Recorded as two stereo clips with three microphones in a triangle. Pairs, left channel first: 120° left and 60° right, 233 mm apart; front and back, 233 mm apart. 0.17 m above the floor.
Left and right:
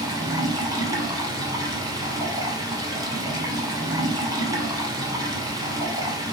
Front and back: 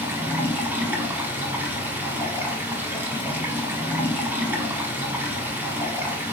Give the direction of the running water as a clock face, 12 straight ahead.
4 o'clock.